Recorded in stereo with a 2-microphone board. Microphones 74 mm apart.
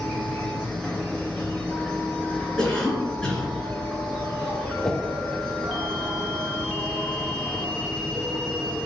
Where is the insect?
5° left (ahead or behind), 2 m.